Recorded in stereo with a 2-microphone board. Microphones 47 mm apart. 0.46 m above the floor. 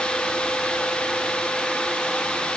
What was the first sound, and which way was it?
Only background noise.